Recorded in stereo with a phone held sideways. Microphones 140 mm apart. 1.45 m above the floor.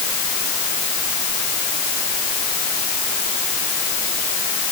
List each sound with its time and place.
Only background noise.